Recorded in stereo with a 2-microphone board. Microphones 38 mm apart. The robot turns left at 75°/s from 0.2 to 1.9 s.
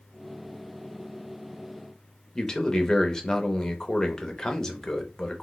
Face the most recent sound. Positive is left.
turn(degrees=15)  # may be behind; listen again after turning